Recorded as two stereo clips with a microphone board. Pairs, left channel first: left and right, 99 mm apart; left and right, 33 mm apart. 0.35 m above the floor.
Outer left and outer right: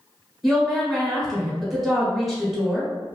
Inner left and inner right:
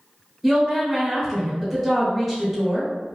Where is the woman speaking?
Centre (ahead or behind), 1.1 m.